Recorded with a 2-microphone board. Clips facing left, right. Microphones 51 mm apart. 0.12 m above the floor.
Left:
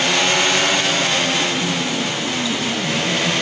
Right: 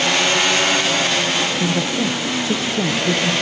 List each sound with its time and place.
1.6 s a woman speaking: 50° right (ahead or behind), 1.6 m